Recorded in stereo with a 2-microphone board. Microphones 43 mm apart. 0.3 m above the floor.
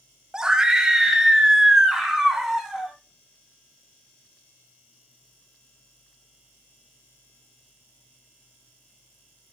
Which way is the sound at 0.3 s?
15° right (ahead or behind).